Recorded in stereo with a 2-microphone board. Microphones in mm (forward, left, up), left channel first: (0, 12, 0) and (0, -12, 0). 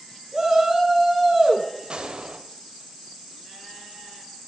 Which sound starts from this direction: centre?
A shout, at 0.3 s.